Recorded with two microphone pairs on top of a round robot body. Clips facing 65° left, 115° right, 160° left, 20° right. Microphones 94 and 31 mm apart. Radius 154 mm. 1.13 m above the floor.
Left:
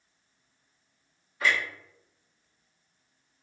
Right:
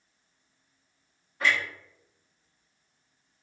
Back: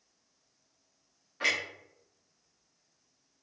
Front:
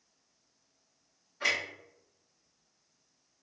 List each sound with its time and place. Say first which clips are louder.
1.4 s a clunk: even, back 1 dB; 160° right, 0.8 m